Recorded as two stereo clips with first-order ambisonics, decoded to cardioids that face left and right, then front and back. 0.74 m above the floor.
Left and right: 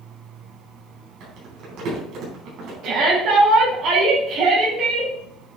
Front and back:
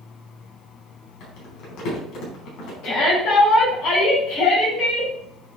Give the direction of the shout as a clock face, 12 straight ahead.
1 o'clock.